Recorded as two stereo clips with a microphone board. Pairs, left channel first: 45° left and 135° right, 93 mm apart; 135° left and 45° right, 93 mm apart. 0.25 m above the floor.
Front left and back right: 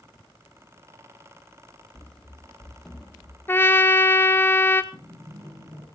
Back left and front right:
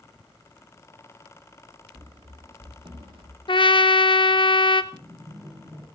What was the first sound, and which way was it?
Running footsteps, 35° right.